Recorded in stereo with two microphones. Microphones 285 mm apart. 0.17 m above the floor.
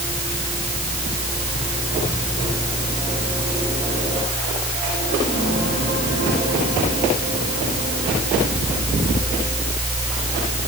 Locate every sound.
Only background noise.